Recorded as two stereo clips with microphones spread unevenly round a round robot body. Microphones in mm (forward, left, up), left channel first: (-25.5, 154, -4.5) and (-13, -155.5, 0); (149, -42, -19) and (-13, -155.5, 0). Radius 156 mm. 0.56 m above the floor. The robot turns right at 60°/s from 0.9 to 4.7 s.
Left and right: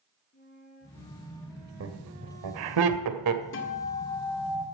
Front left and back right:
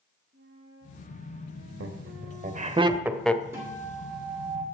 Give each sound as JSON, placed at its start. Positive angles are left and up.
{"t": 0.3, "sound": "a flute", "azimuth_deg": 155, "distance_m": 6.0}
{"t": 1.8, "sound": "laughter", "azimuth_deg": -140, "distance_m": 2.0}
{"t": 3.5, "sound": "a guitar", "azimuth_deg": 130, "distance_m": 1.9}